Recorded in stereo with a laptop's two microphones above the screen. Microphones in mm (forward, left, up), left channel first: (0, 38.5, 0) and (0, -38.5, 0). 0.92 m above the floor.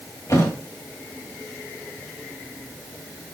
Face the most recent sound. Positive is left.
turn(degrees=45)  # may be behind; listen again after turning